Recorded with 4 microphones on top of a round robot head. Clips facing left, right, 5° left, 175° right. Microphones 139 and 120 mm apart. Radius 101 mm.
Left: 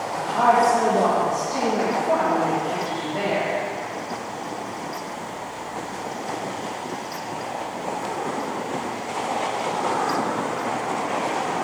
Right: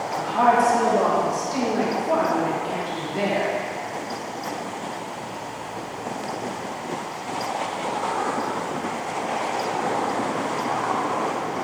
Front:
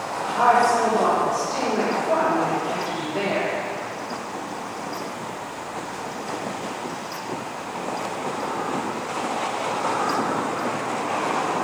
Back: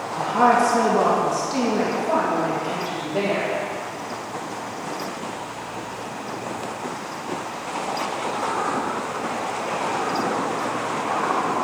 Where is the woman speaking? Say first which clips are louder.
Even, back 1 dB; 170° right, 1.0 m; by 3.5 s 150° left, 3.5 m.